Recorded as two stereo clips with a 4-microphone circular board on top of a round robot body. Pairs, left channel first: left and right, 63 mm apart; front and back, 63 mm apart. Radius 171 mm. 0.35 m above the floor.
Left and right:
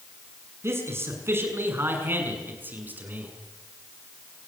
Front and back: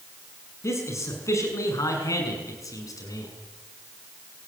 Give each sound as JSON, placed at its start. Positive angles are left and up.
{"t": 0.6, "sound": "a man speaking", "azimuth_deg": -45, "distance_m": 6.5}